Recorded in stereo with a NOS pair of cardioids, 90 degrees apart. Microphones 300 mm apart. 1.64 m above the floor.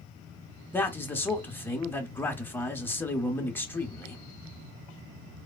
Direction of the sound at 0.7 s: 5° left.